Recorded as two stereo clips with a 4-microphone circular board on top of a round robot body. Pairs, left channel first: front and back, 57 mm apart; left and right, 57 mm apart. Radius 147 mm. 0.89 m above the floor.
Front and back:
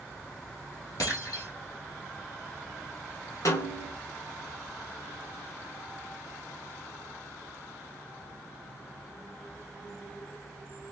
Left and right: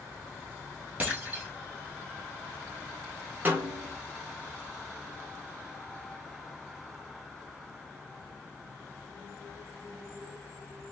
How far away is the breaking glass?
About 2.5 m.